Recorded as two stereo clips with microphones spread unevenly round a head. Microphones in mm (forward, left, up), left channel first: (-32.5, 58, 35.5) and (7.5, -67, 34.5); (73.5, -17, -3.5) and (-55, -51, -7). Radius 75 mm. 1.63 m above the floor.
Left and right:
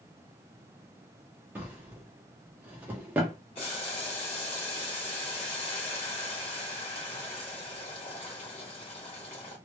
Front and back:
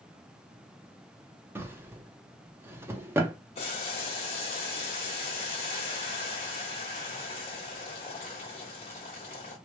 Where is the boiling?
60° left, 1.3 m.